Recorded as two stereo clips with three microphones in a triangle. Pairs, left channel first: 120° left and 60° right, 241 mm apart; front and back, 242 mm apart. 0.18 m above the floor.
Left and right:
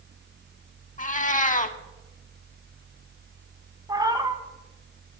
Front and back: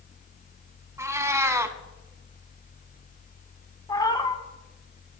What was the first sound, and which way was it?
A cat meowing, 115° left.